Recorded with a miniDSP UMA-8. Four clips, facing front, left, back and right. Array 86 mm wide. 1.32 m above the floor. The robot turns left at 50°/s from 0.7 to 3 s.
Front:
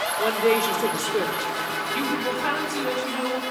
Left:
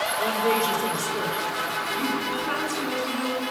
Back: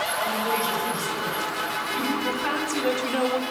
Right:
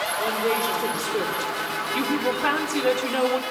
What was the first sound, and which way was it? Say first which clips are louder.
A woman speaking: left 1 dB, front 7 dB; 5° right.